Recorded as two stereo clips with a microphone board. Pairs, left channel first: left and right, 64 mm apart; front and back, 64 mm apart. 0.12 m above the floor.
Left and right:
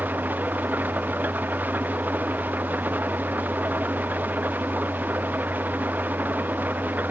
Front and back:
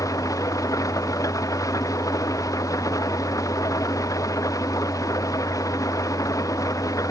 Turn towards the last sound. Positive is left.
turn(degrees=-30)